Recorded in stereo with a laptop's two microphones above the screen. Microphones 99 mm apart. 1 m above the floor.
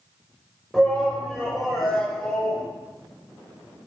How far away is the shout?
About 4 m.